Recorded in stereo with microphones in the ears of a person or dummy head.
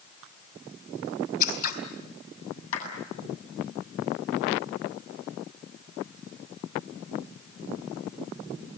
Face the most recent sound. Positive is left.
turn(degrees=80)